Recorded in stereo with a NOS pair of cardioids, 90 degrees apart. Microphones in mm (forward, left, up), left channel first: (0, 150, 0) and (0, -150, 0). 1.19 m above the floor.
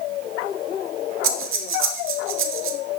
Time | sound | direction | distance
1.2 | breathing | 50° right | 1.1 m